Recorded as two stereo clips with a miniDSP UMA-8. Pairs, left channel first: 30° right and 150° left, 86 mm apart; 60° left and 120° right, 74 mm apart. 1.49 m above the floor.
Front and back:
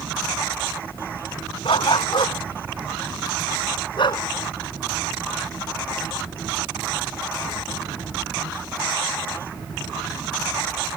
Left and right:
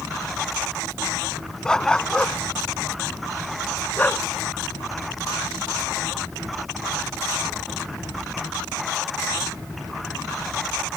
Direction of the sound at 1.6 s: 20° right.